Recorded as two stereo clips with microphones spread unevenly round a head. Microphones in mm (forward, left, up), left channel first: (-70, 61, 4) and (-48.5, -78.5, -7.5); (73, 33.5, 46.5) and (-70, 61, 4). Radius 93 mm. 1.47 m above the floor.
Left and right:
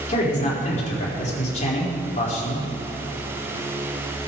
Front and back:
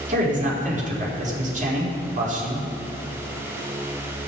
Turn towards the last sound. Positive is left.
turn(degrees=135)